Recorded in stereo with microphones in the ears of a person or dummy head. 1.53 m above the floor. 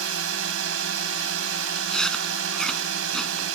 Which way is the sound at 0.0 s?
80° right.